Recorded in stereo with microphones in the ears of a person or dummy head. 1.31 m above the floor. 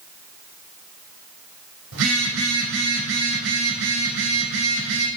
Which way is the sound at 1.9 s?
70° right (ahead or behind).